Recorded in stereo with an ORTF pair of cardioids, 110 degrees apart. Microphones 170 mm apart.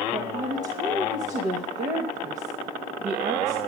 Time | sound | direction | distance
0.1 | a woman speaking | 45° right | 1.8 m